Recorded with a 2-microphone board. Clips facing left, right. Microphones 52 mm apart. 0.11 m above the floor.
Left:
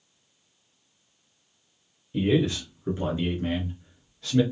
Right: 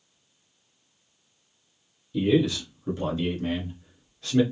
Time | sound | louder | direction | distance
2.1 | a man speaking | right 1 dB | 35° left (ahead or behind) | 1.4 m